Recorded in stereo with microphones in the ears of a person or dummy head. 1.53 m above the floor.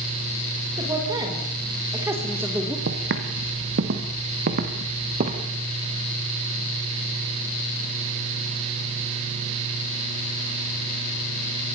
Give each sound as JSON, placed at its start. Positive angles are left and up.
{"t": 0.8, "sound": "a woman speaking", "side_deg": -25, "distance_m": 6.5}
{"t": 2.9, "sound": "footsteps", "side_deg": -60, "distance_m": 3.0}